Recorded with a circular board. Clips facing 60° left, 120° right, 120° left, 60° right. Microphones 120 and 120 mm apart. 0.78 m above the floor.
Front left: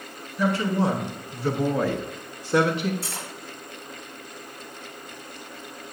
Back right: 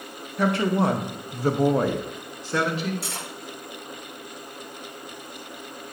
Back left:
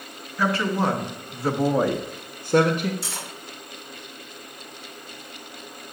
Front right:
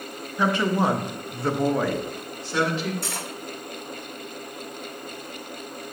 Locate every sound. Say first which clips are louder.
0.4 s a woman speaking: back right 1 dB, front right 1 dB; 130° right, 1.2 m; by 2.9 s 110° left, 0.7 m
3.0 s cutlery clinking: back right 1 dB, front right 3 dB; 95° right, 1.7 m